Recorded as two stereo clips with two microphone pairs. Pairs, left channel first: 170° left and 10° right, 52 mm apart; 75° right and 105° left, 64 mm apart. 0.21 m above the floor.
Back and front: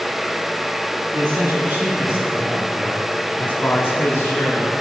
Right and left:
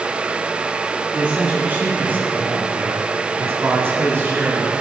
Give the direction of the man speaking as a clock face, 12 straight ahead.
11 o'clock.